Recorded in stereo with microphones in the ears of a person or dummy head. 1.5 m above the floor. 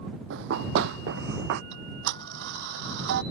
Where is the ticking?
60° right (ahead or behind).